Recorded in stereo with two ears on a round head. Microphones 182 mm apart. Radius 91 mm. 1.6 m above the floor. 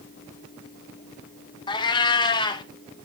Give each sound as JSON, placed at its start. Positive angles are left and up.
{"t": 1.7, "sound": "a cat meowing", "side_deg": 20, "distance_m": 0.8}